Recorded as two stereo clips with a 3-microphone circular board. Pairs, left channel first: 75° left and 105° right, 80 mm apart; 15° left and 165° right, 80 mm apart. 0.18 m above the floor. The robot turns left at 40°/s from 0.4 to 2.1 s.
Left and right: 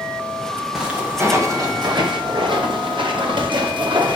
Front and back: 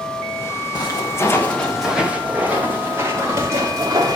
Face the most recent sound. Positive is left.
turn(degrees=-120)